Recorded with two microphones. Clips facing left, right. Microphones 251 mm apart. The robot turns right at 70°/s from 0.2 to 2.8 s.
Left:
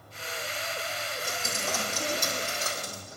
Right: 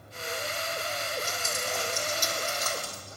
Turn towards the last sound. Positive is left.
turn(degrees=160)